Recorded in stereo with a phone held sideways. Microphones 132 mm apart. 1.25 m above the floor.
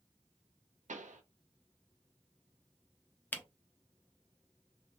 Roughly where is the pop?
Right.